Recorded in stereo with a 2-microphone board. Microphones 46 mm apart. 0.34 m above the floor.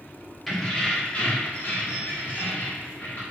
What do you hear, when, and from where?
0.5 s keys jangling: 5° left (ahead or behind), 0.7 m; by 3.2 s 55° left (ahead or behind), 1.3 m